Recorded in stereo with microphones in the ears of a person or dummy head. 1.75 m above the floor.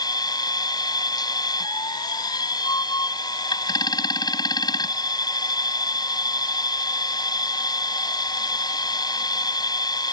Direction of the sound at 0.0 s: 20° left (ahead or behind).